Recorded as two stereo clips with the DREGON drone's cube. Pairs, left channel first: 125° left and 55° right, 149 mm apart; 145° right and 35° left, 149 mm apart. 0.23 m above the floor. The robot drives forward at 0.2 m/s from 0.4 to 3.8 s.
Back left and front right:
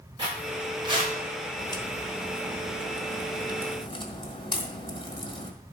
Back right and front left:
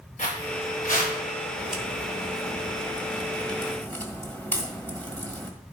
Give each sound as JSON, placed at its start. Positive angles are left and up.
{"t": 0.2, "sound": "footsteps", "azimuth_deg": -115, "distance_m": 4.0}
{"t": 1.6, "sound": "a crack", "azimuth_deg": 115, "distance_m": 1.5}